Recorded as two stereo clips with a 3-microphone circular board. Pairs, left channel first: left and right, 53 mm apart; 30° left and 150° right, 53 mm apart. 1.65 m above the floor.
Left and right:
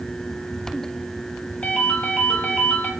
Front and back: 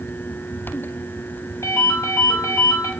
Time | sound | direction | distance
1.6 | a ringtone | 25° left | 1.7 m